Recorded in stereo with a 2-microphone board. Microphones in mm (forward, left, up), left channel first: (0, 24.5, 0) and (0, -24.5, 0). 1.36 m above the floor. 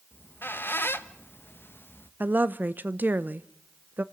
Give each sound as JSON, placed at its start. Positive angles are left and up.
{"t": 0.1, "sound": "a squeak", "side_deg": 45, "distance_m": 0.8}
{"t": 2.2, "sound": "a woman speaking", "side_deg": -35, "distance_m": 0.7}